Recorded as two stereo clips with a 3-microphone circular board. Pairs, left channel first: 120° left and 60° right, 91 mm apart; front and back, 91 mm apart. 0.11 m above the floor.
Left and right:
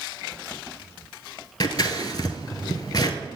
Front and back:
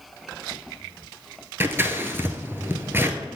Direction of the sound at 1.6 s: 125° left.